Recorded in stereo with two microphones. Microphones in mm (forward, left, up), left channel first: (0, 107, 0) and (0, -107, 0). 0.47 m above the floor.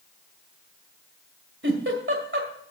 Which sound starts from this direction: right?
A giggle, at 1.6 s.